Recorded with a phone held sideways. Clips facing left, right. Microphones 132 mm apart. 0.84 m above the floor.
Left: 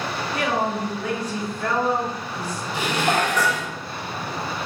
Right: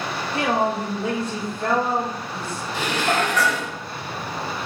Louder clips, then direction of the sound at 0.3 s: Right 3 dB; 20° right (ahead or behind).